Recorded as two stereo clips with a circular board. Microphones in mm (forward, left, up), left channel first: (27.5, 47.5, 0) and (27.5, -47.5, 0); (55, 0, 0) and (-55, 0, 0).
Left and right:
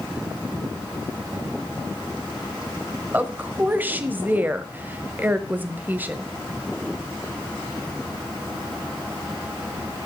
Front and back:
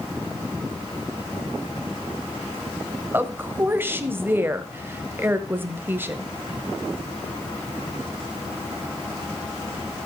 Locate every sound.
3.1 s a woman speaking: 135° right, 1.1 m